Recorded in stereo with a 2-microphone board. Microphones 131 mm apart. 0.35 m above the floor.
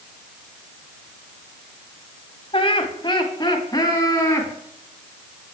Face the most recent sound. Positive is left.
turn(degrees=20)  # may be behind; listen again after turning